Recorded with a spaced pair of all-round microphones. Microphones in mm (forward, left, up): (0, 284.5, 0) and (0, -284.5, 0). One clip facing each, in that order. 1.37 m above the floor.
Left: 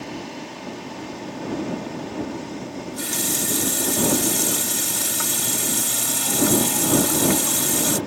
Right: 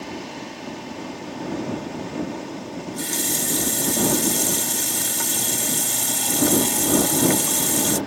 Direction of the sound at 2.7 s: 30° left (ahead or behind).